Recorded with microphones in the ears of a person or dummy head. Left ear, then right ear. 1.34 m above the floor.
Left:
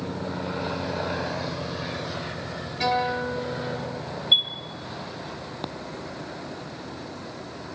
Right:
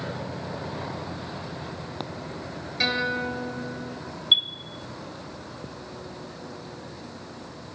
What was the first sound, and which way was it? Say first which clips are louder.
A guitar: left 1 dB; 65° right (ahead or behind).